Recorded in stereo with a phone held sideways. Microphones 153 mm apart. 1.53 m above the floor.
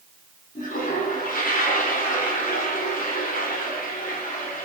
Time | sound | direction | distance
0.6 | a toilet flushing | 60° left (ahead or behind) | 2.5 m